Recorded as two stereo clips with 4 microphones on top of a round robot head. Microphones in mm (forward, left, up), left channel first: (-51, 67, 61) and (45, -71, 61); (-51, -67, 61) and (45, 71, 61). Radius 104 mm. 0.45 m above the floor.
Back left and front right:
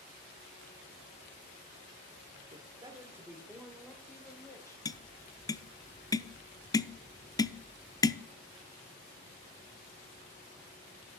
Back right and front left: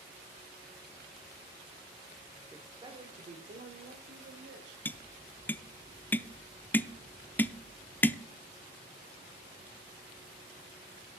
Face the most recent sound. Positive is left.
turn(degrees=165)